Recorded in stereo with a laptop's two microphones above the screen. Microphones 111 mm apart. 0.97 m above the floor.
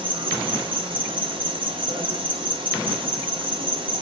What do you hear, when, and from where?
0.0 s an insect: 50° right (ahead or behind), 0.8 m